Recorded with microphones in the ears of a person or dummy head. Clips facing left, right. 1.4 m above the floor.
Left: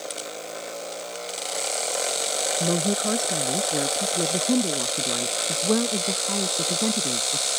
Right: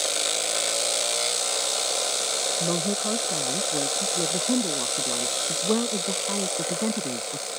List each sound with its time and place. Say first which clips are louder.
2.6 s a woman speaking: left 3 dB; 15° left (ahead or behind); by 7.5 s 5° right (ahead or behind)